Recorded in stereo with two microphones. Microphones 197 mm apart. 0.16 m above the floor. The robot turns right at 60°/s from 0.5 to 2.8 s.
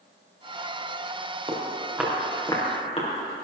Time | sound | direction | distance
1.5 | footsteps | 30° right (ahead or behind) | 4.5 m